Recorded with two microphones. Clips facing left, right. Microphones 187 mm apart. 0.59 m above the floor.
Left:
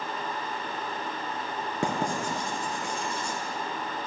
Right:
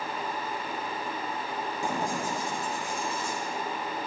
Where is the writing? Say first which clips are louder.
Left 3 dB; 85° left, 2 m.